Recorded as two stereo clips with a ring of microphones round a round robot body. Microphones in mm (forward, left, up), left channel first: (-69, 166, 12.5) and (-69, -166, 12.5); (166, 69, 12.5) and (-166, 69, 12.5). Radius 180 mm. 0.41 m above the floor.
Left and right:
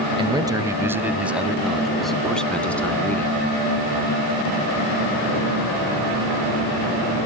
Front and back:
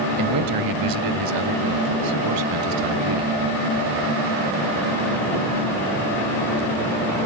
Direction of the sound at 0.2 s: 165° right.